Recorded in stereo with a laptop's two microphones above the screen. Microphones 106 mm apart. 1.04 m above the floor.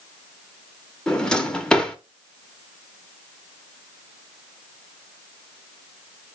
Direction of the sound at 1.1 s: 5° left (ahead or behind).